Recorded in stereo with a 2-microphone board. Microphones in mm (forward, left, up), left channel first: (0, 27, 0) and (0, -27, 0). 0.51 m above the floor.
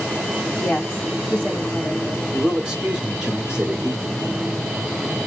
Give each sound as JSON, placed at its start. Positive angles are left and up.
{"t": 0.6, "sound": "a woman speaking", "side_deg": 30, "distance_m": 1.4}
{"t": 2.3, "sound": "a man speaking", "side_deg": -15, "distance_m": 1.1}